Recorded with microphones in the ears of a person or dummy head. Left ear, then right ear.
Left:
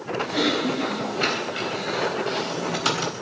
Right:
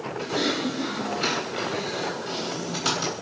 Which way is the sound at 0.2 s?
25° left (ahead or behind).